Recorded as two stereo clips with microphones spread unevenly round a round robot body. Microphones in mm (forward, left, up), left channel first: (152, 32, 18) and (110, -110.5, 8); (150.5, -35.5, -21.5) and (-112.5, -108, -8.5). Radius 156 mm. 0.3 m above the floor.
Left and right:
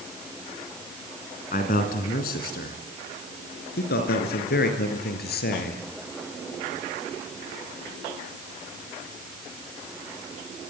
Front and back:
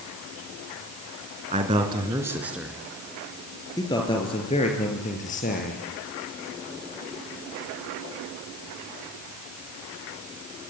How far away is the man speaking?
About 3 m.